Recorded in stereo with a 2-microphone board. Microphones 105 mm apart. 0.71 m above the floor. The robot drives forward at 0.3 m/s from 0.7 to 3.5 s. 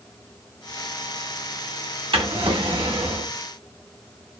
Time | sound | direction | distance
2.1 | a drawer | 60° right (ahead or behind) | 0.8 m